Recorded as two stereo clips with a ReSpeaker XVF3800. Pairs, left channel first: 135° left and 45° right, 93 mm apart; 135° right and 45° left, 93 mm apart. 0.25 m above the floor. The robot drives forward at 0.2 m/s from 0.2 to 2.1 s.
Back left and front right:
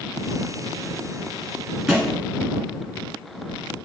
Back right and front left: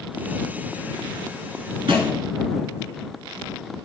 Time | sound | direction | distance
1.9 | a thud | 40° left | 1.0 m